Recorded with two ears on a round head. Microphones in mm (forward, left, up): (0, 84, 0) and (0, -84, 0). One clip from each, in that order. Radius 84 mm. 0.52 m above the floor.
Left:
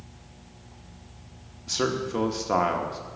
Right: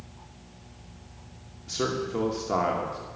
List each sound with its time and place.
1.7 s a man speaking: 25° left (ahead or behind), 0.9 m